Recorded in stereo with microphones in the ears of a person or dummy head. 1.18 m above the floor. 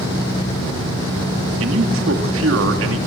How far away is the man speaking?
About 3 m.